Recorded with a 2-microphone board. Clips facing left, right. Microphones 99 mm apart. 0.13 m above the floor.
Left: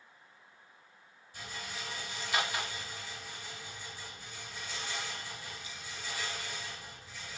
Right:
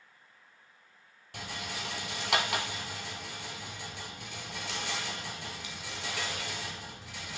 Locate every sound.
1.3 s a rattle: 75° right (ahead or behind), 1.4 m